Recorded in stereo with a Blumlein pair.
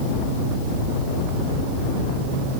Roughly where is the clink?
No clink in this recording.